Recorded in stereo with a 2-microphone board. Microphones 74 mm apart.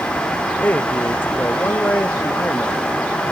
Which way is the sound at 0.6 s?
25° left (ahead or behind).